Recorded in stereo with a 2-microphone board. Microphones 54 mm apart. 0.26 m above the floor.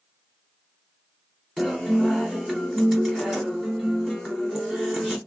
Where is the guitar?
5° right (ahead or behind), 1.1 m.